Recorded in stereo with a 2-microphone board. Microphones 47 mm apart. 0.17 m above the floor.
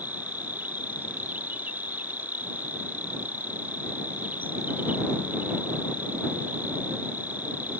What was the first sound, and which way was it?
An insect, 40° right (ahead or behind).